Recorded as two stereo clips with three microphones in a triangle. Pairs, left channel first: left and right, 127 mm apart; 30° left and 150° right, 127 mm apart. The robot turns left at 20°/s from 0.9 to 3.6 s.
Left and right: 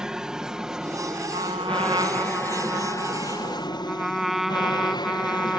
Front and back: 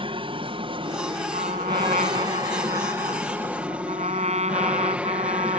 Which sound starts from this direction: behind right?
A trumpet, at 1.3 s.